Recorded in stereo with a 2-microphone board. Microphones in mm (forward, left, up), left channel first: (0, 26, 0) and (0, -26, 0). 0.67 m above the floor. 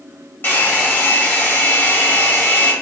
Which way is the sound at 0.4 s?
45° left (ahead or behind).